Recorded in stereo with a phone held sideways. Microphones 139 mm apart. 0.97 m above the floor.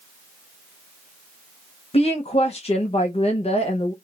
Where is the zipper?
I don't hear a zipper.